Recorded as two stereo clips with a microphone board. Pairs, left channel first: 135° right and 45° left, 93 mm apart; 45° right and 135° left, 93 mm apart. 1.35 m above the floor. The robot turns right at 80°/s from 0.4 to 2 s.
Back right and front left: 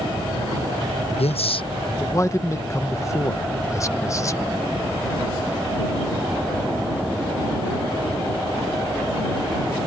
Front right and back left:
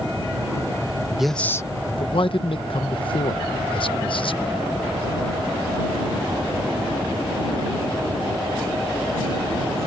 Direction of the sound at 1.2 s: 140° right.